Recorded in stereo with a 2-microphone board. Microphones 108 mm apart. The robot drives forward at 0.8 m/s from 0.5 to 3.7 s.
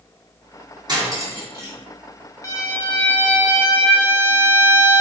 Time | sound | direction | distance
0.9 | cutlery clinking | 35° right (ahead or behind) | 1.5 m
2.4 | a violin | 30° left (ahead or behind) | 0.8 m